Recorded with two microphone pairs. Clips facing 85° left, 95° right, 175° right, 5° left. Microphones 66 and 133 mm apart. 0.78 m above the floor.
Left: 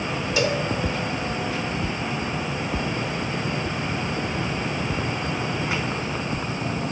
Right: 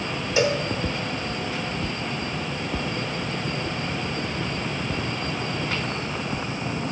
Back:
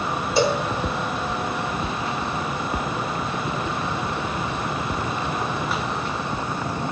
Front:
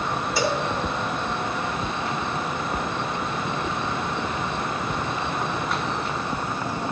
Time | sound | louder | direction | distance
0.4 | a cowbell | right 2 dB, back 5 dB | 130° right | 0.9 m